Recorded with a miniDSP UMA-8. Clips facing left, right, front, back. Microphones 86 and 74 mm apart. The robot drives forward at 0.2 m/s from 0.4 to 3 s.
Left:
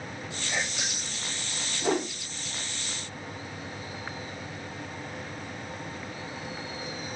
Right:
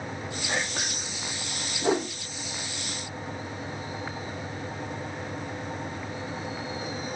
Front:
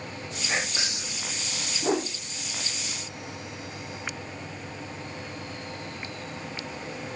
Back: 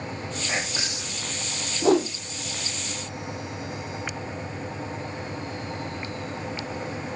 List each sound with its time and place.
0.5 s whispering: 125° right, 5.5 m; by 1.2 s 130° right, 6 m
1.8 s a whoosh: 170° right, 1.6 m